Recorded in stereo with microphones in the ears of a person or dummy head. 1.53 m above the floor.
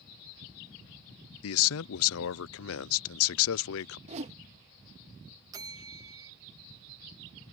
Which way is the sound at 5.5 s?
20° right (ahead or behind).